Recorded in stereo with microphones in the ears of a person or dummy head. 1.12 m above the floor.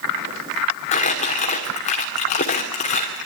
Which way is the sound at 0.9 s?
35° left (ahead or behind).